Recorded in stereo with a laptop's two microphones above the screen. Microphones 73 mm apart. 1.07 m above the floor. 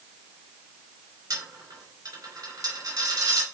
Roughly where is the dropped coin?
Right.